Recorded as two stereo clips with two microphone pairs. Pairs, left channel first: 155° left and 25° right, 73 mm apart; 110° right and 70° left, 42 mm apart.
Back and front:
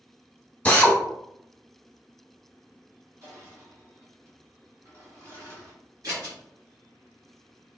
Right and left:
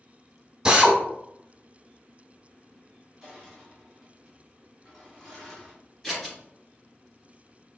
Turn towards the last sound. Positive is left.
turn(degrees=-40)